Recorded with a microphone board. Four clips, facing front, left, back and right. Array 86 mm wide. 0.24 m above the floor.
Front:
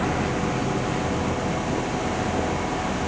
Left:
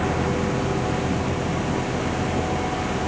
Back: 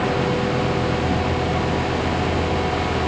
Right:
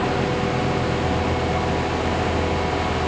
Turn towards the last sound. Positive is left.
No sound to turn to.